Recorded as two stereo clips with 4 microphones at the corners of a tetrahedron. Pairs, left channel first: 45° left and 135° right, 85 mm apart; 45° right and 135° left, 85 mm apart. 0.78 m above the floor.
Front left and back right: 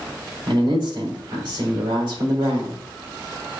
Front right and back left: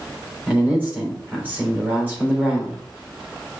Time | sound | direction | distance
0.5 | a man speaking | 155° right | 3.5 m